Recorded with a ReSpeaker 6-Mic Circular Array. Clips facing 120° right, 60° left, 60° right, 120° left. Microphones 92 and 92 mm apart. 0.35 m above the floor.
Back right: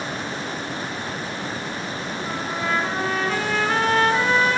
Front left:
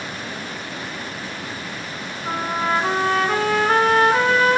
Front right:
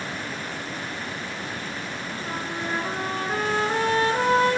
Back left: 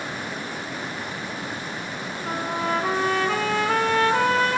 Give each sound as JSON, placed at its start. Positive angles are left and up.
{"t": 2.2, "sound": "a trumpet", "azimuth_deg": 105, "distance_m": 3.5}